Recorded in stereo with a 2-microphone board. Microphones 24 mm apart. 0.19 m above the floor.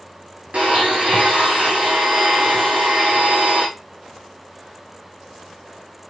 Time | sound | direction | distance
0.5 | a blender | 75° right (ahead or behind) | 3.5 m